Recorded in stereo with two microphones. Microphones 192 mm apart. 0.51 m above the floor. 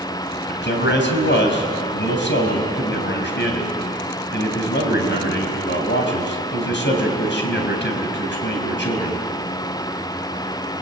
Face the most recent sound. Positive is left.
turn(degrees=70)  # may be behind; listen again after turning